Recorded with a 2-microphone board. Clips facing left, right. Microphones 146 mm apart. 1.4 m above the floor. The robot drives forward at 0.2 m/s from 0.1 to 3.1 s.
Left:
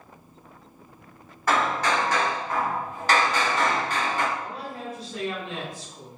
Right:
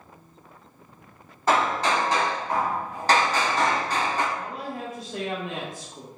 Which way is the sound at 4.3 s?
50° right (ahead or behind).